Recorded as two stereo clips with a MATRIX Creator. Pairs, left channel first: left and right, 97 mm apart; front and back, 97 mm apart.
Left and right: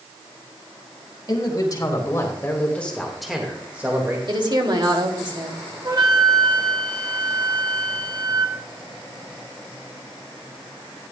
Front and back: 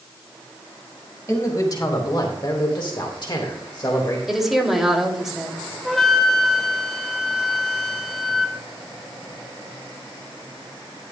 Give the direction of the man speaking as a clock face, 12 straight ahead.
10 o'clock.